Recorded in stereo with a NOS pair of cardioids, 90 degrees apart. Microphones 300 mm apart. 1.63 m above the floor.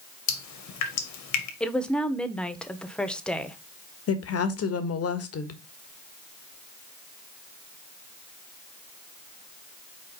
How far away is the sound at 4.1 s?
About 1.7 m.